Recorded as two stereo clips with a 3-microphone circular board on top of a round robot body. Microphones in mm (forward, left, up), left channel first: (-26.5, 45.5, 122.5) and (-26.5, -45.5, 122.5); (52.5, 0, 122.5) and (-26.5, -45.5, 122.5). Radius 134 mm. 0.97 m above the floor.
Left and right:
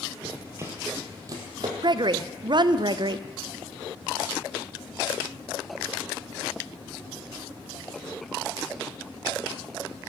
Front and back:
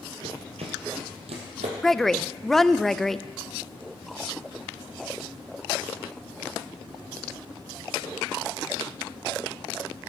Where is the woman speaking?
55° right, 0.6 m.